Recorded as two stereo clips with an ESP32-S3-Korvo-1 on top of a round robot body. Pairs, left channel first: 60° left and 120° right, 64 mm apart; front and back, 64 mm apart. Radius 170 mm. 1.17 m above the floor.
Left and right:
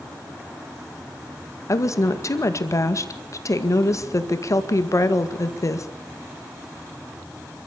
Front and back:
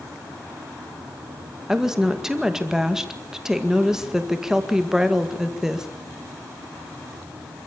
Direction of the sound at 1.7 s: 95° left.